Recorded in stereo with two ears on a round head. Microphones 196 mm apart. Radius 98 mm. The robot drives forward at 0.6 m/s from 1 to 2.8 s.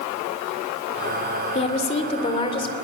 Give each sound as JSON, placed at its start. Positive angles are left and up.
{"t": 1.6, "sound": "a woman speaking", "side_deg": 30, "distance_m": 2.5}